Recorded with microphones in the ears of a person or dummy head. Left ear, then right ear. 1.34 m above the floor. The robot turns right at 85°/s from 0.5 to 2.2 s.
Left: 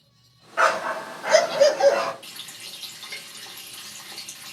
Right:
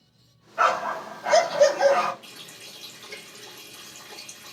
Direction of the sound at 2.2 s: 20° left (ahead or behind).